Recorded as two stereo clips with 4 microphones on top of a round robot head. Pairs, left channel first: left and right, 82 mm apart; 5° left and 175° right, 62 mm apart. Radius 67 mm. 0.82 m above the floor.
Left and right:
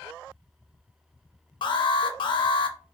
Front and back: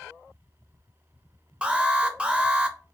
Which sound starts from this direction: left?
An alarm, at 1.6 s.